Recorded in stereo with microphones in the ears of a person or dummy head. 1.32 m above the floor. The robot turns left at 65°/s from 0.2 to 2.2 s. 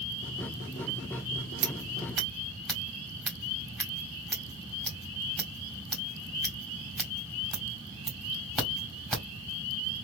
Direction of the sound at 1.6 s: 35° right (ahead or behind).